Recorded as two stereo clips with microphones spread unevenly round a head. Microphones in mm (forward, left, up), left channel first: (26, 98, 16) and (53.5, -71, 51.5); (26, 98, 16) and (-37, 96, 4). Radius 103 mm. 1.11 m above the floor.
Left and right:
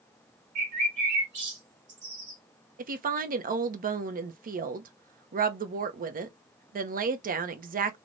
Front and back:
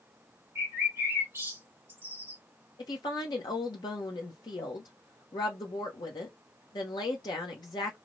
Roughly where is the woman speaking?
Ahead right.